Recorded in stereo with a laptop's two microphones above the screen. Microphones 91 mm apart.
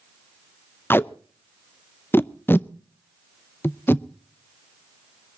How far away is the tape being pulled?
About 0.6 m.